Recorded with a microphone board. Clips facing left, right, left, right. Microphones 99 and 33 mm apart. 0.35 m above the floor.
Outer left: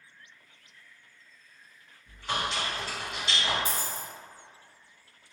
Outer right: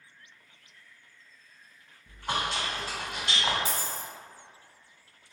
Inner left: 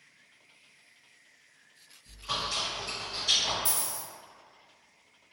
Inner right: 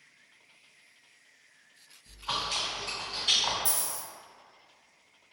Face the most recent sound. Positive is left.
turn(degrees=45)  # may be behind; listen again after turning